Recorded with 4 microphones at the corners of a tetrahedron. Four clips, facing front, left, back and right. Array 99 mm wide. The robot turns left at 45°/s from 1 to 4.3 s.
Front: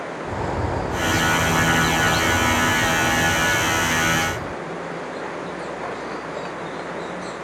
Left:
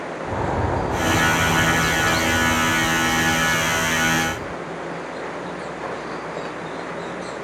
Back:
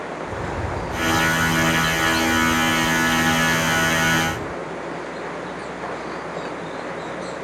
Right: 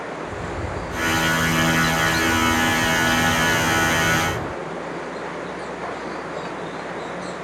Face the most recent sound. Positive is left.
turn(degrees=-85)